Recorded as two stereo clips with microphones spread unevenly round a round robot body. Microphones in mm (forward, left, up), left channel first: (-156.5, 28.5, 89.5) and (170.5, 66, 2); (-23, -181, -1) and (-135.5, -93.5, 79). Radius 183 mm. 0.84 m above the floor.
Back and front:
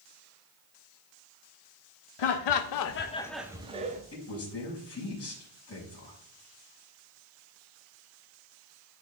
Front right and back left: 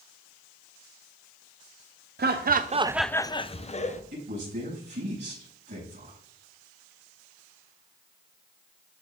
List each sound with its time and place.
2.2 s laughter: 175° left, 0.8 m; by 4.0 s 60° right, 1.3 m
4.1 s a woman speaking: 140° left, 5.5 m